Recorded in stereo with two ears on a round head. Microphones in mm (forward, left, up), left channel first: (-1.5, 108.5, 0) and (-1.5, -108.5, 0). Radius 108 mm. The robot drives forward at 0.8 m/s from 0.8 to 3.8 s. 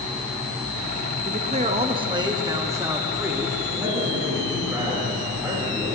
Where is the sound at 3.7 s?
10° right (ahead or behind), 3 m.